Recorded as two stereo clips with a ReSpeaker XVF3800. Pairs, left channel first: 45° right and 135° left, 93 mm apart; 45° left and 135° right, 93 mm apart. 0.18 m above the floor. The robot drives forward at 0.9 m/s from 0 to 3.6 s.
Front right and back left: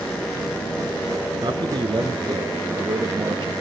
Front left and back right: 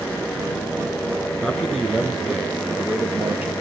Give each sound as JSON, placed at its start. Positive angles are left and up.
{"t": 1.4, "sound": "a man speaking", "azimuth_deg": 125, "distance_m": 1.8}